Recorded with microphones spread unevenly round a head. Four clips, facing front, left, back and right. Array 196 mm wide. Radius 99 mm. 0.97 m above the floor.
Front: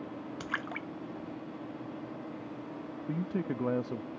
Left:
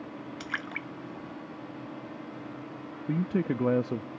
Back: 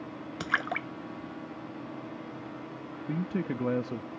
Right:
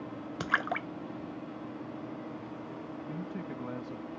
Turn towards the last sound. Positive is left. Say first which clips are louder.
# left 14 dB, back 2 dB
turn(degrees=100)